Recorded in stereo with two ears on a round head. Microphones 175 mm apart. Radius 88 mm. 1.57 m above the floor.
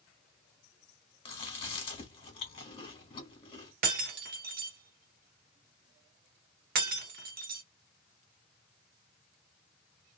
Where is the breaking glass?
45° right (ahead or behind), 1.0 m.